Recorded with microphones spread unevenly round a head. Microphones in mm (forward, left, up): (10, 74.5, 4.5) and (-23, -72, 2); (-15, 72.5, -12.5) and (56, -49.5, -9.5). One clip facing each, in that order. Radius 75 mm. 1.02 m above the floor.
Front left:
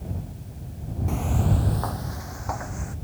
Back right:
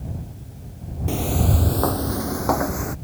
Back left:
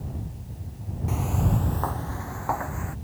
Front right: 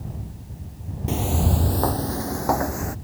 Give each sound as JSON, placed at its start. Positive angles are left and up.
{"t": 1.1, "sound": "footsteps", "azimuth_deg": -85}